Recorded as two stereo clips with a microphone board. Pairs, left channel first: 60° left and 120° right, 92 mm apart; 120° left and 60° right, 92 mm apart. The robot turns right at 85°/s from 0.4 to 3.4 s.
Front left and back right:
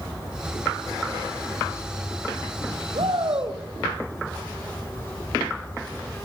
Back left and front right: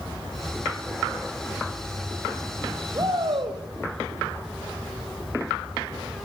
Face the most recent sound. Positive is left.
turn(degrees=-75)